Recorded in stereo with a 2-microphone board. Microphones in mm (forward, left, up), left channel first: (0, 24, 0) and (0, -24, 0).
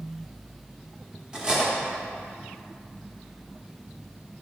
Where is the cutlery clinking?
20° right (ahead or behind), 1.0 m.